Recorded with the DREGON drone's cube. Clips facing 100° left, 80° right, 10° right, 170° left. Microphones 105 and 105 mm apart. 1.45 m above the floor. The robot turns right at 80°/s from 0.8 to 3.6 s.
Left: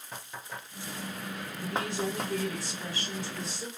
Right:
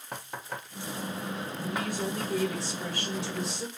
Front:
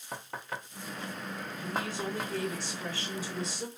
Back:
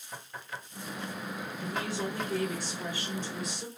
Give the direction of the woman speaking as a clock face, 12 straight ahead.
7 o'clock.